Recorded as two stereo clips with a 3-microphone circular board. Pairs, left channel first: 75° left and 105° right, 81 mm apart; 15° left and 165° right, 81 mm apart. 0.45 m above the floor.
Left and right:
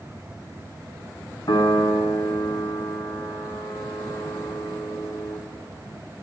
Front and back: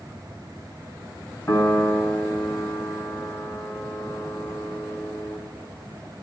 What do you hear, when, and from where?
1.5 s a piano: 60° left, 2.5 m